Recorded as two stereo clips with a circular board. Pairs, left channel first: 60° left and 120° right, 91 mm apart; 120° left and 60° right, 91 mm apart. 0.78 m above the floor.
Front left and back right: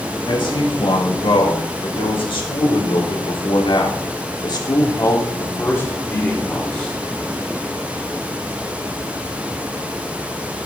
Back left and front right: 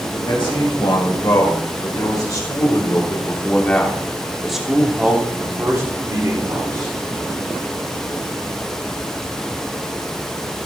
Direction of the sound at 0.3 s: 90° left.